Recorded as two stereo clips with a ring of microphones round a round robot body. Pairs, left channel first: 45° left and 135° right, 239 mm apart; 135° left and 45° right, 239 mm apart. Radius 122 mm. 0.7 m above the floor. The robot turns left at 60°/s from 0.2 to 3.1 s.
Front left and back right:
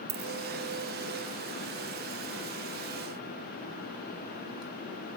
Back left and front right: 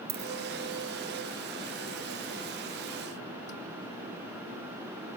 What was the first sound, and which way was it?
A dropped coin, 100° right.